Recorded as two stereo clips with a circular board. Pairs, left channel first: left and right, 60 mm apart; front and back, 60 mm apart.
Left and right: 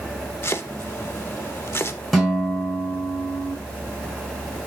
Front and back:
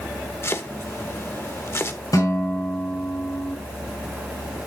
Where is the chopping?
45° left, 0.9 m.